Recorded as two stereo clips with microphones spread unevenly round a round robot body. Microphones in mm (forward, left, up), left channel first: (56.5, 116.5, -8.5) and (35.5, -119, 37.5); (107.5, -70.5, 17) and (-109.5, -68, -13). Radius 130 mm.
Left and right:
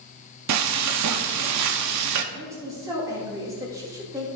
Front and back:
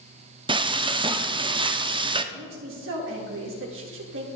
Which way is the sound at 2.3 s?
Straight behind.